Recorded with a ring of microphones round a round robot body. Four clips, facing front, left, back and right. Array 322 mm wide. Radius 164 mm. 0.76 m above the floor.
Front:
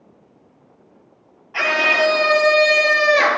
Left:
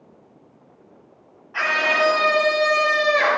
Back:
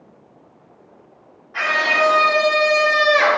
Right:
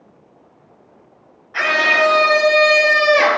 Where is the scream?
35° right, 2 m; by 3.4 s 55° right, 1.4 m.